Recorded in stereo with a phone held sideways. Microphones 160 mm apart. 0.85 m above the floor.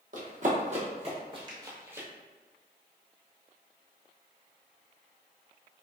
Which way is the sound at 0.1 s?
55° right (ahead or behind).